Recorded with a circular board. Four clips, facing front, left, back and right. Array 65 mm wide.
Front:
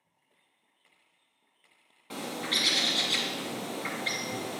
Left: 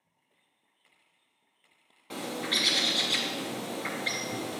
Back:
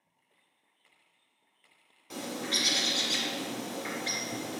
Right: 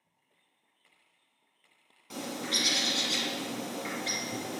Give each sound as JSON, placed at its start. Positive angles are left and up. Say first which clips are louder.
{"t": 2.1, "sound": "a bird", "louder": "left 2 dB, front 1 dB", "azimuth_deg": 45, "distance_m": 1.6}